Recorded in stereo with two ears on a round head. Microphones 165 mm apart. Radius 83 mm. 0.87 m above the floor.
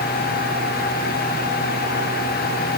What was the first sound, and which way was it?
Only background noise.